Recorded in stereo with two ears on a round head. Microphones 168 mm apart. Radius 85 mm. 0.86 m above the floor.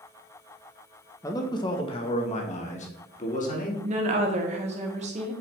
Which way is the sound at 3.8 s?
40° right (ahead or behind).